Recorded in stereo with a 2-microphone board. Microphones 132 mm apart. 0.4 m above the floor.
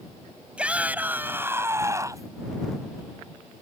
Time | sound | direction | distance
0.6 | a shout | 10° right (ahead or behind) | ?